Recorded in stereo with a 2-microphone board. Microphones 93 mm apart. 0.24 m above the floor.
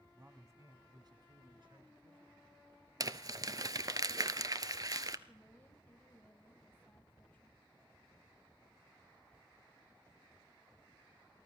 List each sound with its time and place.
0.1 s a man speaking: 20° right (ahead or behind), 1.6 m; by 2.6 s 65° right (ahead or behind), 4.5 m
3.0 s crumpling: 40° right (ahead or behind), 0.6 m
5.3 s a woman speaking: 20° left (ahead or behind), 1.1 m